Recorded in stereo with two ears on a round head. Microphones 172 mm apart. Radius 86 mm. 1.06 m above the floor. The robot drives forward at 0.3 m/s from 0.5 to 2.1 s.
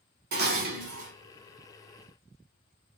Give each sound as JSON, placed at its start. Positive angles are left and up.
{"t": 0.3, "sound": "dishes clattering", "side_deg": -50, "distance_m": 0.7}